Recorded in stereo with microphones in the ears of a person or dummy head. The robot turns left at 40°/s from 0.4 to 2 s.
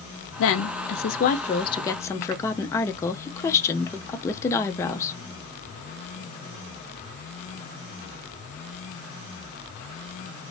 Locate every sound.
0.4 s a woman speaking: 80° left, 0.6 m; by 5.1 s 15° left, 0.6 m